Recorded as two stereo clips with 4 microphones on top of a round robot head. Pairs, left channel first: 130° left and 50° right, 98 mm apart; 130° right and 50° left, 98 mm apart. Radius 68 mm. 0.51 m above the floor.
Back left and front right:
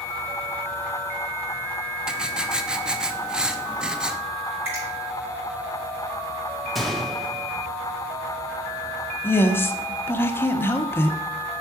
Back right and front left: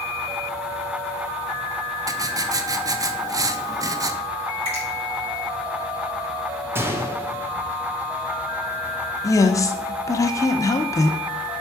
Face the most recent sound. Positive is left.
turn(degrees=-170)